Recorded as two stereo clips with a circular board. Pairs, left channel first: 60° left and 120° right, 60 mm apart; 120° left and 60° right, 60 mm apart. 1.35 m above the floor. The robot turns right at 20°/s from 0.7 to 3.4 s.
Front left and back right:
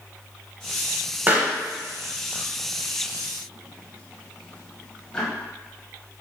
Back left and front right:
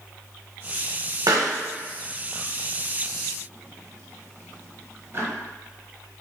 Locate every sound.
1.3 s a pop: 60° right, 0.6 m; by 5.3 s 15° right, 0.6 m